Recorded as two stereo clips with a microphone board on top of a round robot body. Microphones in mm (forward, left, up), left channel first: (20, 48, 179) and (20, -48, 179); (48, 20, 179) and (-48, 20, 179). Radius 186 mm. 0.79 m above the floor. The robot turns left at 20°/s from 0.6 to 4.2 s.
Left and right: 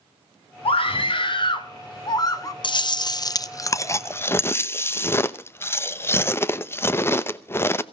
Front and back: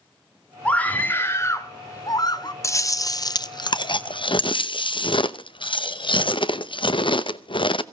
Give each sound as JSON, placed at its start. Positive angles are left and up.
{"t": 0.7, "sound": "a scream", "azimuth_deg": 75, "distance_m": 2.0}
{"t": 2.6, "sound": "chewing", "azimuth_deg": 55, "distance_m": 0.9}